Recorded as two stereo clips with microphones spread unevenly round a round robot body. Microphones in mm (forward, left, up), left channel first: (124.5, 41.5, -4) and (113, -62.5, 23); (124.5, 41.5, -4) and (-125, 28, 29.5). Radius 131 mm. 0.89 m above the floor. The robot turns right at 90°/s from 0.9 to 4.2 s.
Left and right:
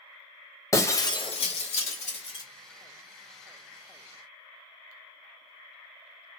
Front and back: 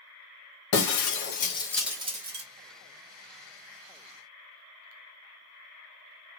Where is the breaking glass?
15° left, 1.1 m; by 2.5 s 155° left, 1.1 m.